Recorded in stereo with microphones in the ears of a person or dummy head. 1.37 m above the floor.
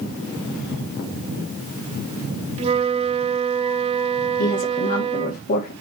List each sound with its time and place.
2.6 s a flute: 25° right (ahead or behind), 1.1 m
4.4 s a woman speaking: 55° left (ahead or behind), 2.5 m